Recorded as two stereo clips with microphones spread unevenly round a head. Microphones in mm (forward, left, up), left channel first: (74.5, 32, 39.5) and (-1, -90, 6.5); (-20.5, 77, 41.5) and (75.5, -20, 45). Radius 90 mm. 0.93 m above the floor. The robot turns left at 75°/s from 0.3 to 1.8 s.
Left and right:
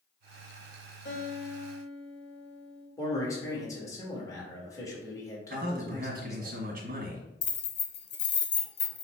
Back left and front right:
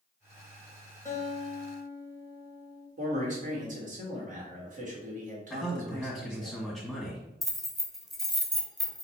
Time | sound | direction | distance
1.1 | a guitar | 70° left | 1.6 m
3.0 | a man speaking | 15° right | 1.5 m
5.5 | a man speaking | 135° right | 1.5 m
7.4 | keys jangling | 45° left | 0.9 m